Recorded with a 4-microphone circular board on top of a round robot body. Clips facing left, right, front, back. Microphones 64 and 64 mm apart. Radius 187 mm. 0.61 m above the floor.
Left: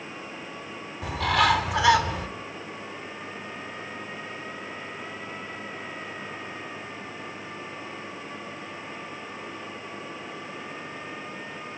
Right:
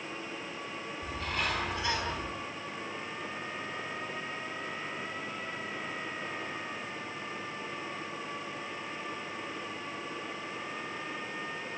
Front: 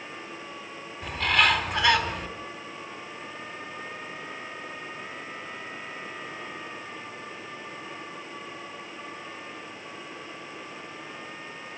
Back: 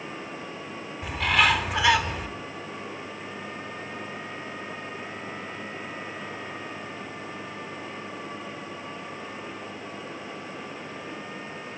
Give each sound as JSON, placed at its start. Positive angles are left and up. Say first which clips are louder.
{"t": 1.0, "sound": "a bird", "louder": "left 13 dB, back 1 dB", "azimuth_deg": 90, "distance_m": 3.0}